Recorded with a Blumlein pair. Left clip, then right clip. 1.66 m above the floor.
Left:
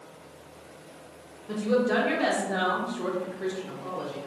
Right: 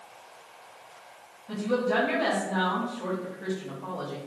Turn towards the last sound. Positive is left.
turn(degrees=-65)